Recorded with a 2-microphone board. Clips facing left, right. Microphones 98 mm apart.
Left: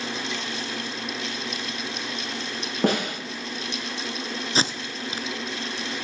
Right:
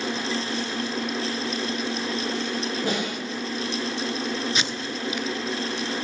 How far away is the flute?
No flute in this recording.